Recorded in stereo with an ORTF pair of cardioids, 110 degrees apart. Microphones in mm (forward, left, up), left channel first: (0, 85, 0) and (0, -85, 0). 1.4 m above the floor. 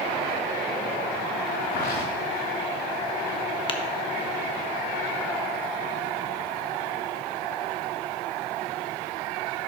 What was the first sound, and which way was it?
Footsteps, 65° left.